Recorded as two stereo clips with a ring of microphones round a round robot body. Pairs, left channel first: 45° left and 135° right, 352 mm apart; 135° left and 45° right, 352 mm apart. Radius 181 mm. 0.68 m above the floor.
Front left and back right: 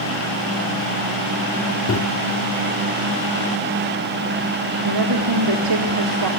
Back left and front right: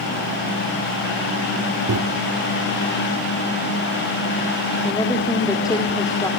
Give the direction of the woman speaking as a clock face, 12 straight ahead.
5 o'clock.